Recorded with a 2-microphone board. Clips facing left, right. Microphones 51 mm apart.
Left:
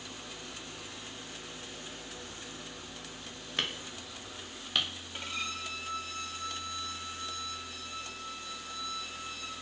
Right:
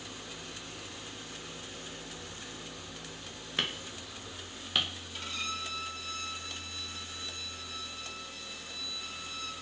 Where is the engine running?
35° left (ahead or behind), 2.0 m.